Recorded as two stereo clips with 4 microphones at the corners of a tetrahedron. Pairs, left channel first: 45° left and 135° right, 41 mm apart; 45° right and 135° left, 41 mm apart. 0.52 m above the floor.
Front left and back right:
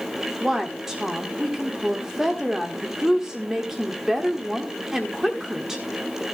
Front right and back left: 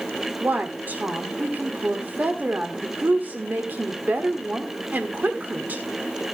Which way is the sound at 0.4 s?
150° left.